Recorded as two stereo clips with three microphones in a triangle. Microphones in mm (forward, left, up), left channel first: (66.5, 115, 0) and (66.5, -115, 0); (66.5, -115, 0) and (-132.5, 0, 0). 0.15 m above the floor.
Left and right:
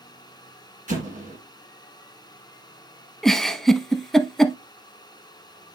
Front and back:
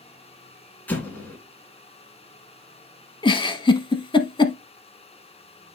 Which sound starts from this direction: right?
An explosion, at 0.9 s.